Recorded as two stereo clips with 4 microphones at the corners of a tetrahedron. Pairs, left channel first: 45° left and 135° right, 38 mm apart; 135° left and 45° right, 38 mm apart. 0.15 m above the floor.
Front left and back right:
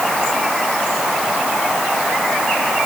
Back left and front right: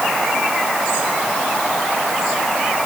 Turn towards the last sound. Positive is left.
No sound to turn to.